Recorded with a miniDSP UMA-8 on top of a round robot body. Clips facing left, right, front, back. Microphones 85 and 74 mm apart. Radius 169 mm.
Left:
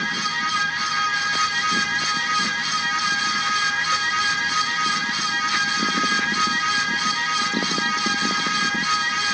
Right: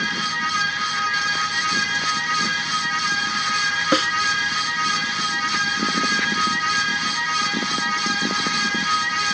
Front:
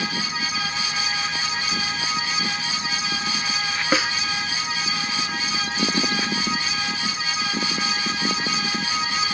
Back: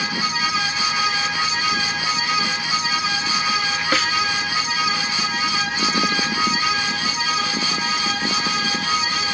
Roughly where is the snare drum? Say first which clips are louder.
Right 4 dB, front 1 dB; right.